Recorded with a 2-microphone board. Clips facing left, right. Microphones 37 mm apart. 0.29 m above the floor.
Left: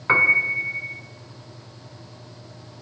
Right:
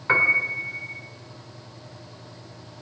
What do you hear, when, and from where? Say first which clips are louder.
0.1 s a piano: left 2 dB; 15° left (ahead or behind), 2.5 m